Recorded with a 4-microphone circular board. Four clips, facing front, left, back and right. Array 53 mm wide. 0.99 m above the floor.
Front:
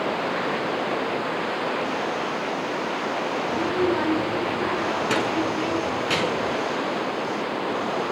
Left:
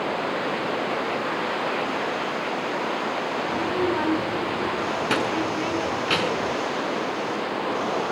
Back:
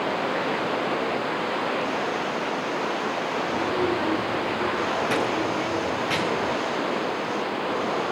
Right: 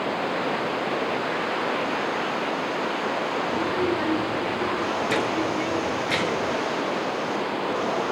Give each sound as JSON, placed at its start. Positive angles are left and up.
{"t": 3.5, "sound": "a child speaking", "azimuth_deg": 65, "distance_m": 8.0}